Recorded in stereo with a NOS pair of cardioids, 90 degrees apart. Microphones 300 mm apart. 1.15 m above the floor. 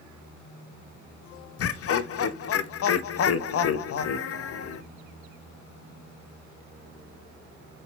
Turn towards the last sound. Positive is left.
turn(degrees=55)